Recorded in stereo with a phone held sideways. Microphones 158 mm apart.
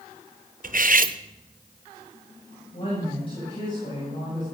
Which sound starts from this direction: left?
A woman speaking, at 2.7 s.